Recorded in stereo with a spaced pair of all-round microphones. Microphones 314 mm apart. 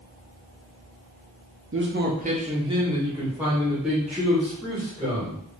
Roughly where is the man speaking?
Right.